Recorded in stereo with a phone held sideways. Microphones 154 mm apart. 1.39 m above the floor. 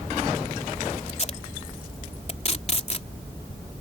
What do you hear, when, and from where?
1.1 s tape being pulled: 45° left (ahead or behind)